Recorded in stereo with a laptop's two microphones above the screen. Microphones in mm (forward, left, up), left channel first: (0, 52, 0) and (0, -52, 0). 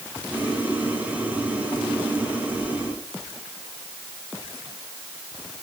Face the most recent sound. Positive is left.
turn(degrees=-15)  # may be behind; listen again after turning